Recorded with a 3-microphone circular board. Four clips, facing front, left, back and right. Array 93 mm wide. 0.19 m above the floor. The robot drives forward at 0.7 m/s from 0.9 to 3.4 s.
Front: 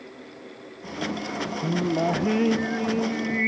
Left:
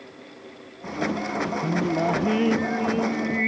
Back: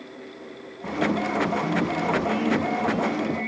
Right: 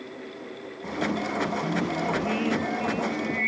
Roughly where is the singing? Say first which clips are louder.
Left 4 dB, even; ahead left.